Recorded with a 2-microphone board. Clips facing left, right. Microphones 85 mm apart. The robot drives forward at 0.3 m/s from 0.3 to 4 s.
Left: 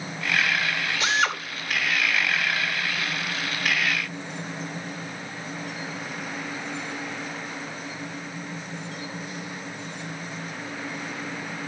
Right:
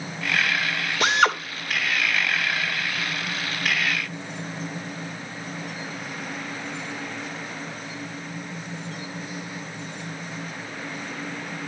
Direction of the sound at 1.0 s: 65° right (ahead or behind).